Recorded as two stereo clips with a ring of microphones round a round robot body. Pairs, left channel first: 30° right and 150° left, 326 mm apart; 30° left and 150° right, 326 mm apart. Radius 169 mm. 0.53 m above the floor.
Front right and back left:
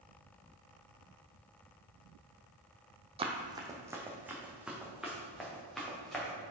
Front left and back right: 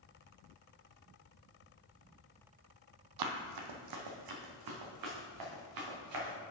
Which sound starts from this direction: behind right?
Running footsteps, at 3.2 s.